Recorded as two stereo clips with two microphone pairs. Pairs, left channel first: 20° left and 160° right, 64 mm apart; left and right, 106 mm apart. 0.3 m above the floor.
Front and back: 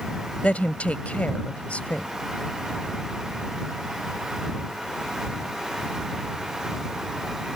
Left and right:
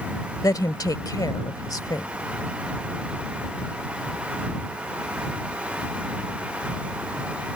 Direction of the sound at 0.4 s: 70° left.